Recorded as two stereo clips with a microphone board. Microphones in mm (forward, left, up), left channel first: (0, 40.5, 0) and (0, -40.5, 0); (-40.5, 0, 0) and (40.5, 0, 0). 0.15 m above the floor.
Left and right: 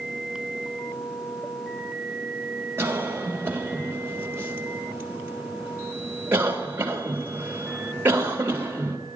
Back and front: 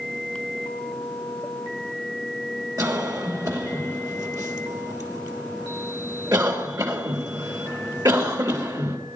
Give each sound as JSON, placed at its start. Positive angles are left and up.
{"t": 2.8, "sound": "a cough", "azimuth_deg": -30, "distance_m": 3.0}